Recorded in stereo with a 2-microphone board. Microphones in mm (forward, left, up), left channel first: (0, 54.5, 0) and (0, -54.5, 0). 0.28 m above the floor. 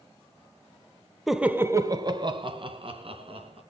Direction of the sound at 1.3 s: Centre (ahead or behind).